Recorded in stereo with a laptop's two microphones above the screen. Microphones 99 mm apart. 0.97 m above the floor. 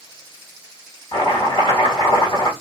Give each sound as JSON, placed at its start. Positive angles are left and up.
{"t": 1.1, "sound": "chopping", "side_deg": 50, "distance_m": 1.7}